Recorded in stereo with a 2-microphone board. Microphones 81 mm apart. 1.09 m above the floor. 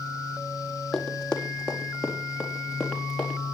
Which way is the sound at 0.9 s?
10° left (ahead or behind).